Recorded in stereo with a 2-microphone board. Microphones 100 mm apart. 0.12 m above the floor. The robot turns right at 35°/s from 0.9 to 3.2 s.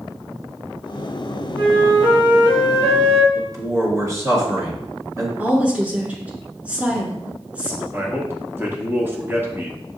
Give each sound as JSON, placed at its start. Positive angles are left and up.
{"t": 1.6, "sound": "a flute", "azimuth_deg": -135, "distance_m": 1.6}
{"t": 3.4, "sound": "a man speaking", "side_deg": -30, "distance_m": 1.9}
{"t": 5.4, "sound": "a woman speaking", "side_deg": -15, "distance_m": 1.2}
{"t": 7.9, "sound": "a man speaking", "side_deg": -25, "distance_m": 1.1}